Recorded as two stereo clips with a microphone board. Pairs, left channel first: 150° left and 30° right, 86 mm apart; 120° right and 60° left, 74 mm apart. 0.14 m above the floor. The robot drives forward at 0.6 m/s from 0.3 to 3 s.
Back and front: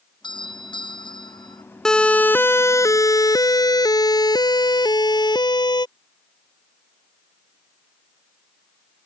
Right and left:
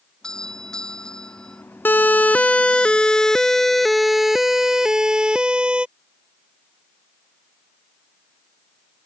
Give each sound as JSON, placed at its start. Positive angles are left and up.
{"t": 0.2, "sound": "a doorbell", "azimuth_deg": 160}
{"t": 1.9, "sound": "a siren", "azimuth_deg": -135}